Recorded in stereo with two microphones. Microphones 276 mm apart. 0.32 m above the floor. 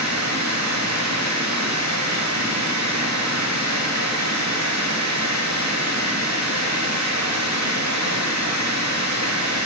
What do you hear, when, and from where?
0.0 s running water: 80° right, 8 m